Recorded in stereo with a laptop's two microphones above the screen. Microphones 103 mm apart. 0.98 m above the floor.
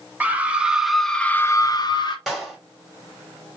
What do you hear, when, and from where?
0.2 s a scream: 15° right (ahead or behind), 1.1 m; by 2.2 s 45° left (ahead or behind), 0.7 m
2.3 s a clap: centre (ahead or behind), 3 m